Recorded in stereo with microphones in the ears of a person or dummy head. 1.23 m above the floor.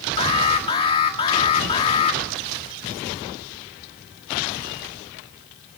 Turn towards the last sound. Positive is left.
turn(degrees=30)  # may be behind; listen again after turning